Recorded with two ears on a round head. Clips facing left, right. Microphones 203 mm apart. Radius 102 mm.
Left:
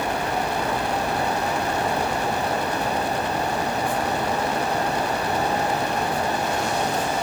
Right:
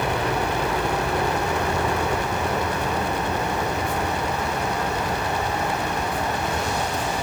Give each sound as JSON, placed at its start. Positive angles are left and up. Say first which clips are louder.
{"t": 0.0, "sound": "a helicopter", "louder": "right 1 dB", "side_deg": -60}